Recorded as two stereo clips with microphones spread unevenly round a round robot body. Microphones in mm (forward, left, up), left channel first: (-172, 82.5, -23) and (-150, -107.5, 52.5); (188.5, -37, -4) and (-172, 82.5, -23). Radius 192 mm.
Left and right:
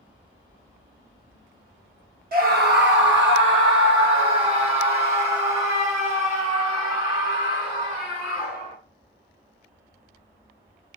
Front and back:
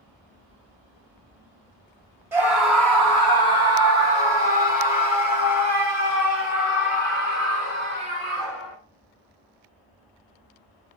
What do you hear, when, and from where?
2.3 s a scream: 120° right, 1.5 m; by 8.8 s 75° right, 5.5 m